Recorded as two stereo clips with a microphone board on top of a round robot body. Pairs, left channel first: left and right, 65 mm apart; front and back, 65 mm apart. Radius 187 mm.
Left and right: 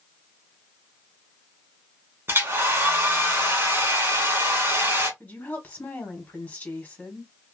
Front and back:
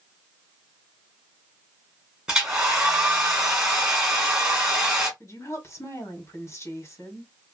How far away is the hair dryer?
About 1.7 m.